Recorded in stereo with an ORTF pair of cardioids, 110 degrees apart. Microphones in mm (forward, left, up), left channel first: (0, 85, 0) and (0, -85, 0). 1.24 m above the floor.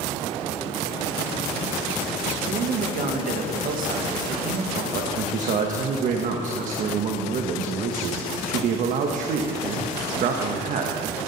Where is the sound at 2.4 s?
65° right, 1.5 m.